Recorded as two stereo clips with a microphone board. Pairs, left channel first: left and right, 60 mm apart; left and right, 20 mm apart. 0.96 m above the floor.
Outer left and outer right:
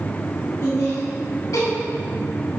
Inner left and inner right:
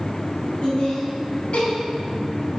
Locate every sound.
0.6 s laughter: 55° left (ahead or behind), 1.7 m; by 1.7 s 65° left (ahead or behind), 1.8 m